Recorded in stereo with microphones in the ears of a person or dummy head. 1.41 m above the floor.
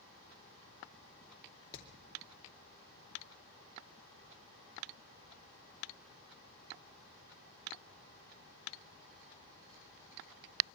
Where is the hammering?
25° left (ahead or behind), 2.5 m.